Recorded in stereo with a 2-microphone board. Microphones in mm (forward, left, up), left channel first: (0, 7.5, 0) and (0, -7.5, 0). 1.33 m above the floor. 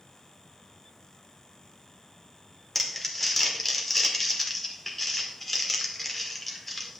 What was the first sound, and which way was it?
Crumpling, 5° left (ahead or behind).